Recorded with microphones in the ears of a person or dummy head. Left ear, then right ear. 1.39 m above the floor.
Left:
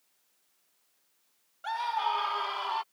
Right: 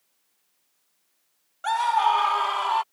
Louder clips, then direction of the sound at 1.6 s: Right 9 dB; 40° right (ahead or behind).